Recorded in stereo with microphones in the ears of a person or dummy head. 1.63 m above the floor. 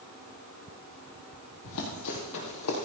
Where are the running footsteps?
65° left (ahead or behind), 4 m.